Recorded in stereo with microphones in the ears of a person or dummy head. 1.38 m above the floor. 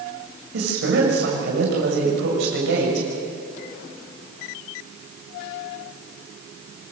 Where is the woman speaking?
75° right (ahead or behind), 7 m.